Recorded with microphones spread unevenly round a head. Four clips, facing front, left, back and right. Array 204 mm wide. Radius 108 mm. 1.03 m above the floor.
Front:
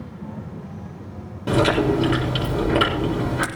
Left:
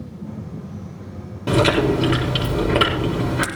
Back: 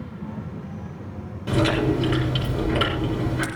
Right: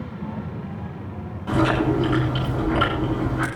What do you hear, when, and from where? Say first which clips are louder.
1.5 s chewing: left 3 dB, front 3 dB; 40° left, 7.5 m